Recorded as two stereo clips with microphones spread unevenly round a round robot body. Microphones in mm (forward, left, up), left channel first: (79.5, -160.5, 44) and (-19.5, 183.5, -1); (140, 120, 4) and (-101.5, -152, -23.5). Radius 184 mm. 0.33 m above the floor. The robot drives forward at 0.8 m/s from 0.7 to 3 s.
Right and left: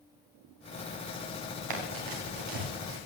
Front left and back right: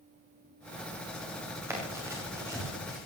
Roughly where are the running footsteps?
Behind left.